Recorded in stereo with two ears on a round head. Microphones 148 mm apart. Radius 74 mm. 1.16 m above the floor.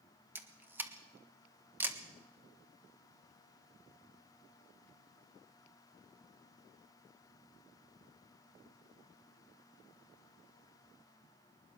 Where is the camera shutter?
10° right (ahead or behind), 1.4 m.